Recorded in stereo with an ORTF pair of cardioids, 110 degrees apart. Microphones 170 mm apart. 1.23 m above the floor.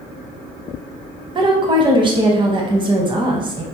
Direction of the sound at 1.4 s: 30° right.